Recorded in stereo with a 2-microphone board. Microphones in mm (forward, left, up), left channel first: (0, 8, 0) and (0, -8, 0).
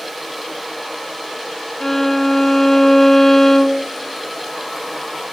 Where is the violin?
20° left (ahead or behind), 1.2 m.